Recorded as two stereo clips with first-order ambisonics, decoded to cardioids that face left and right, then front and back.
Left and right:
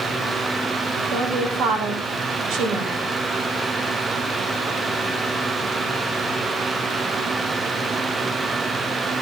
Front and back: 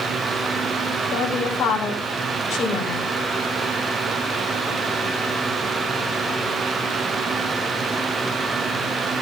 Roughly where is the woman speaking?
Ahead right.